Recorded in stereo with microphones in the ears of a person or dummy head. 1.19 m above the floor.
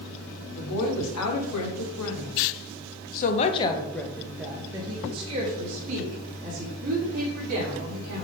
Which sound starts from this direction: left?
A woman speaking, at 0.6 s.